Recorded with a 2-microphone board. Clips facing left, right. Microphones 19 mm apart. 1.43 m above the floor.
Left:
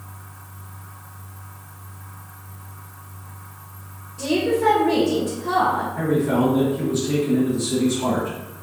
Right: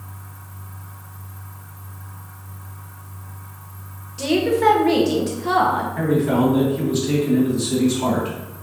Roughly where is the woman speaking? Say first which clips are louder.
Right 2 dB; right.